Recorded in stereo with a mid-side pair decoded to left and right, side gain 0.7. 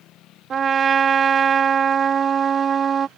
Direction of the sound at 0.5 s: 30° right.